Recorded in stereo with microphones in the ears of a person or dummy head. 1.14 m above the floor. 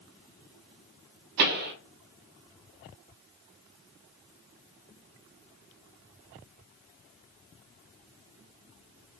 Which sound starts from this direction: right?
A pop, at 1.4 s.